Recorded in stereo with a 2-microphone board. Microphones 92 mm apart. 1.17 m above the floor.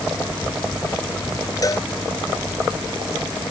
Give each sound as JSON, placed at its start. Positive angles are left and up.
{"t": 1.6, "sound": "a cowbell", "side_deg": 40}